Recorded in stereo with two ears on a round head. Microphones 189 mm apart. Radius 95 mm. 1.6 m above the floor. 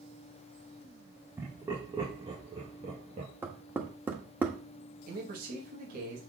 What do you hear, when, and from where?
1.4 s laughter: 10° right (ahead or behind), 2 m; by 3.3 s 35° right (ahead or behind), 2.5 m
3.4 s knocking: 10° right (ahead or behind), 1.5 m
5.1 s a man speaking: 45° right (ahead or behind), 2.5 m